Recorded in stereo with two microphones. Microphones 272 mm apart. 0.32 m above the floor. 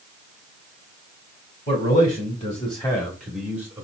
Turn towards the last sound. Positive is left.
turn(degrees=-10)  # may be behind; listen again after turning